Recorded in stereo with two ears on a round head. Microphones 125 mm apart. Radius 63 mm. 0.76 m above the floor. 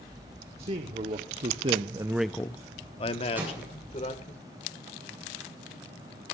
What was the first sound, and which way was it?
A man speaking, 45° right (ahead or behind).